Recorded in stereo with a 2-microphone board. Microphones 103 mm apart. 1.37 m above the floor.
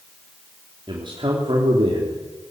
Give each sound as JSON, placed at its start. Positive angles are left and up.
{"t": 0.9, "sound": "a man speaking", "side_deg": -55, "distance_m": 3.5}